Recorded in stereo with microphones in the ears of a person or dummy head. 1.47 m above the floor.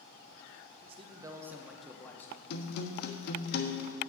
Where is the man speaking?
35° right (ahead or behind), 1.2 m; by 2.4 s 15° left (ahead or behind), 1.6 m.